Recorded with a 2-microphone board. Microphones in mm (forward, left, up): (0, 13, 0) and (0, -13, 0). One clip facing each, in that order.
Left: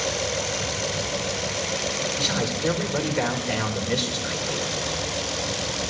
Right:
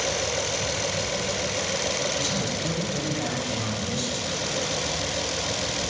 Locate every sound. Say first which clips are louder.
2.2 s a man speaking: left 2 dB; 60° left (ahead or behind), 1.8 m